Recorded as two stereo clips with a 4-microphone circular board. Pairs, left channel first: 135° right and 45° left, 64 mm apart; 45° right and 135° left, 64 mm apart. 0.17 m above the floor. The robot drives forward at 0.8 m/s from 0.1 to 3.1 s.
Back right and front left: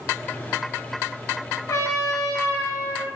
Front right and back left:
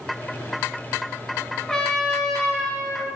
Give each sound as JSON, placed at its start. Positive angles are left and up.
{"t": 1.7, "sound": "a trumpet", "azimuth_deg": -120, "distance_m": 2.5}